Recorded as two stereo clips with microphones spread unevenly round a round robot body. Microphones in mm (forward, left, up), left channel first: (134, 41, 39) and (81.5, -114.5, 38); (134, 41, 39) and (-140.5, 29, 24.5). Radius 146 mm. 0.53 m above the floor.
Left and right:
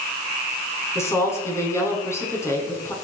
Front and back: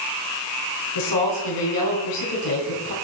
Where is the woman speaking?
Straight ahead, 5 m.